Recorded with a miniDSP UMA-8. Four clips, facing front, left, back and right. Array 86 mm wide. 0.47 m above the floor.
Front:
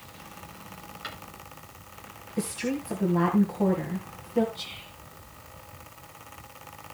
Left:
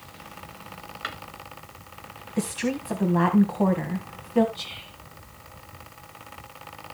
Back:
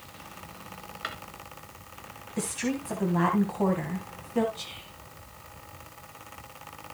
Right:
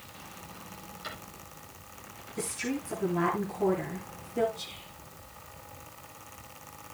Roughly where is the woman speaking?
Left.